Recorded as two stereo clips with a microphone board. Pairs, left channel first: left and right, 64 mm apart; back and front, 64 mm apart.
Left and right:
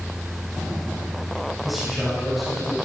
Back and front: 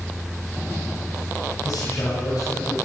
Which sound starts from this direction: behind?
A man speaking, at 1.6 s.